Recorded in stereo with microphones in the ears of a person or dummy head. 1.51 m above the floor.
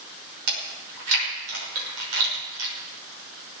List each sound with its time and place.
0.5 s chewing: 90° right, 6 m